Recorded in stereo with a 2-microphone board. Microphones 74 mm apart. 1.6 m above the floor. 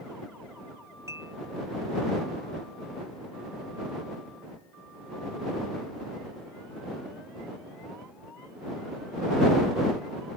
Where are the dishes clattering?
40° right (ahead or behind).